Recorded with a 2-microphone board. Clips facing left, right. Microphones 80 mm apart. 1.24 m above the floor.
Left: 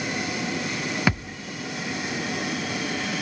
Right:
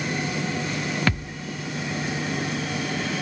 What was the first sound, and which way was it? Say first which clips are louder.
A thud: left 1 dB; 10° left (ahead or behind).